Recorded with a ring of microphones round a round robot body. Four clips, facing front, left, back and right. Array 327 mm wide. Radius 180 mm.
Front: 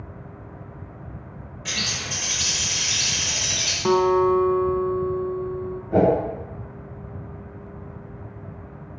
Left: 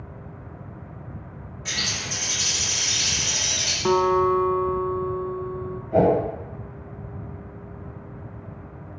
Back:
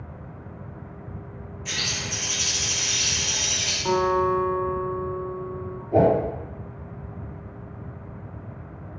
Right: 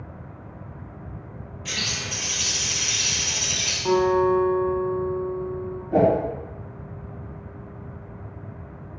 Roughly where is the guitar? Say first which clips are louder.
Even, front 4 dB; ahead left.